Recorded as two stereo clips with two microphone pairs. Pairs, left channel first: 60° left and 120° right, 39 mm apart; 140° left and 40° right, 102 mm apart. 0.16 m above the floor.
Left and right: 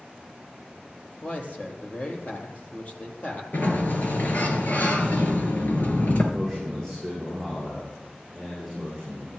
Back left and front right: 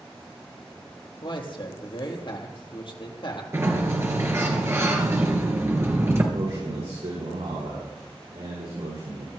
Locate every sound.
1.2 s a man speaking: 110° left, 3.5 m
3.5 s a sliding door: 20° left, 3 m
6.3 s a man speaking: 20° right, 9.5 m